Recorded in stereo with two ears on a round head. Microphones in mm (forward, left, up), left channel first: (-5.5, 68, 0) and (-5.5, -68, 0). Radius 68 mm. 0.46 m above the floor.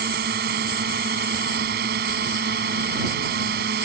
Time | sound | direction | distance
0.0 | a drone | 70° right (ahead or behind) | ?